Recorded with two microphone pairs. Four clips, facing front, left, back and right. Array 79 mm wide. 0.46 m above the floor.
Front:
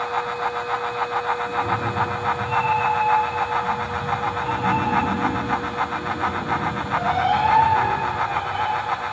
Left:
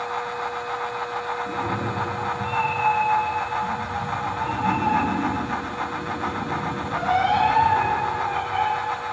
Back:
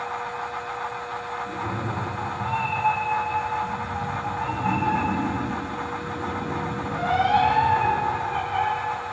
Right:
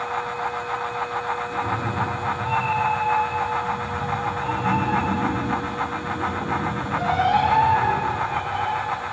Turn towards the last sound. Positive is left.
turn(degrees=65)